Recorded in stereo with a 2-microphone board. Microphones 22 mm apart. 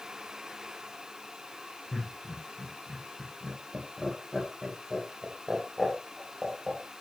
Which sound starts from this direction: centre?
Laughter, at 1.9 s.